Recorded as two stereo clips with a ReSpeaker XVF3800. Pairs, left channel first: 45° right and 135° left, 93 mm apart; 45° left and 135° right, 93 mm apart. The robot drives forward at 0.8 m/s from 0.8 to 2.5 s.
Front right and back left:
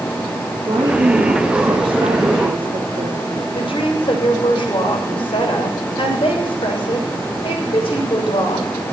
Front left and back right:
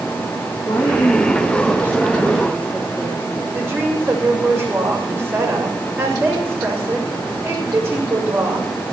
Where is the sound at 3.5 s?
65° right, 6 m.